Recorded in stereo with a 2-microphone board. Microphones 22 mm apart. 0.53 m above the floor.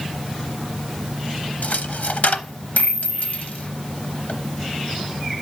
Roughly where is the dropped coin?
Left.